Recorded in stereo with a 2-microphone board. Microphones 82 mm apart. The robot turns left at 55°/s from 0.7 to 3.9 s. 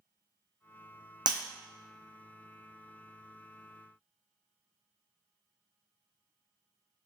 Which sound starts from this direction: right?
Breaking glass, at 1.3 s.